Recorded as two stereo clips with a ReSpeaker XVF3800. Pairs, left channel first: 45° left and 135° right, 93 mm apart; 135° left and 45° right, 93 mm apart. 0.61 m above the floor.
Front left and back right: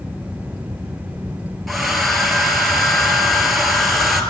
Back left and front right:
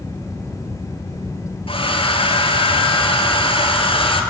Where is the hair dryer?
135° left, 2 m.